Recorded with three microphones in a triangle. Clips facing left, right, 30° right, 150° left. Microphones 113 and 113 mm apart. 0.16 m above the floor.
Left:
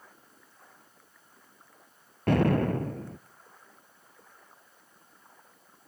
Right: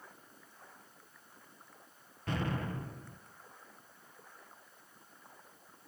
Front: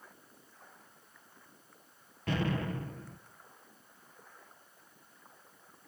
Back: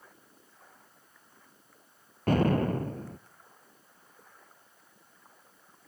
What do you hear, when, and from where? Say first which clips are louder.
2.3 s an explosion: left 13 dB, back 8 dB; 110° left, 0.6 m